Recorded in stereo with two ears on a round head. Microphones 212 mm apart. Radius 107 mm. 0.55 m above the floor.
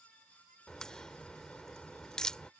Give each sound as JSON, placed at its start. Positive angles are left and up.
{"t": 0.7, "sound": "a crack", "side_deg": 5}